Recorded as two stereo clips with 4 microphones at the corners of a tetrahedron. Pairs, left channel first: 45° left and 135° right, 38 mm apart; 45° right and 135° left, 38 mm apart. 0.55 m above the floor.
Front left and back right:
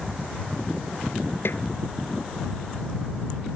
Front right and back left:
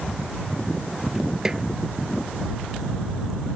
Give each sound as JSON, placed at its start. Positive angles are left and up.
{"t": 1.4, "sound": "a snare drum", "azimuth_deg": 60}